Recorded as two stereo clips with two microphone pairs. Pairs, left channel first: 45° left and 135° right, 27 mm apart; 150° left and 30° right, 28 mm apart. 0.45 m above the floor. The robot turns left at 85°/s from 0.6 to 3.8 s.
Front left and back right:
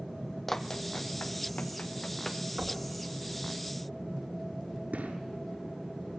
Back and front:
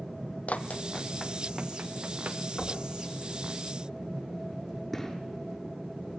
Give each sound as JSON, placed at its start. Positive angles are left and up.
{"t": 0.5, "sound": "running footsteps", "azimuth_deg": 130, "distance_m": 1.1}
{"t": 2.6, "sound": "knocking", "azimuth_deg": -125, "distance_m": 3.5}
{"t": 4.9, "sound": "a gunshot", "azimuth_deg": -125, "distance_m": 7.0}